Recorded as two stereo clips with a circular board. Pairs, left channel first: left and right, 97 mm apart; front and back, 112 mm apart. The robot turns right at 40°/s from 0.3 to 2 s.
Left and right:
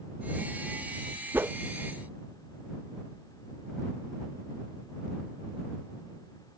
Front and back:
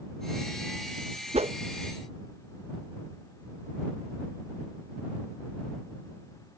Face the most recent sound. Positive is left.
turn(degrees=-135)